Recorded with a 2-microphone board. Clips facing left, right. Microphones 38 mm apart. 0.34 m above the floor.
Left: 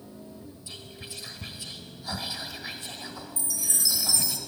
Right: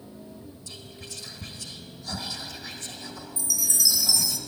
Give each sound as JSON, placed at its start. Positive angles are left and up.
{"t": 0.7, "sound": "whispering", "side_deg": 20, "distance_m": 1.0}
{"t": 3.4, "sound": "a chime", "side_deg": 35, "distance_m": 0.7}